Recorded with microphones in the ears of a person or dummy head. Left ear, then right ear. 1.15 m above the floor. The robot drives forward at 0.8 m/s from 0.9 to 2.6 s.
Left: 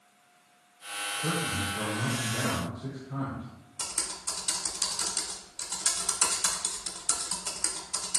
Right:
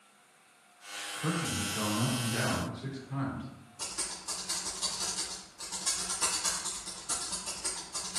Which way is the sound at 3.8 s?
45° left (ahead or behind).